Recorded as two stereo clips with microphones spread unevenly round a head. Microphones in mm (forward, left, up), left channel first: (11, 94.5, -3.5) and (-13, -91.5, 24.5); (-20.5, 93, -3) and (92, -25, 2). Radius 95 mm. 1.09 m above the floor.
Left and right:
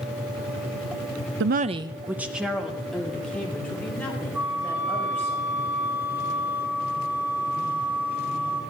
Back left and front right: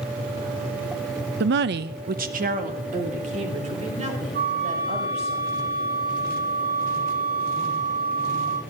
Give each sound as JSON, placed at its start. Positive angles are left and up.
{"t": 1.4, "sound": "a woman speaking", "azimuth_deg": -70, "distance_m": 0.5}
{"t": 4.3, "sound": "a flute", "azimuth_deg": -15, "distance_m": 9.5}